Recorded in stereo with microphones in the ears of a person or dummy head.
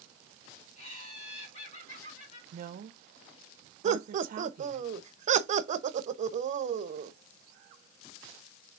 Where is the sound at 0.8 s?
45° left (ahead or behind), 3.5 m.